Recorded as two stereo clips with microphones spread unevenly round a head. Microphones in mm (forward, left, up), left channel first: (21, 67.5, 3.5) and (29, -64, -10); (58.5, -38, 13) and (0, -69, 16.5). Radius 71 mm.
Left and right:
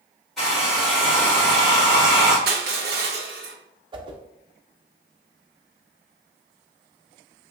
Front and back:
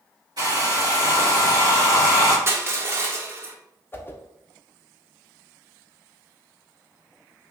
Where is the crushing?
100° right, 0.9 m.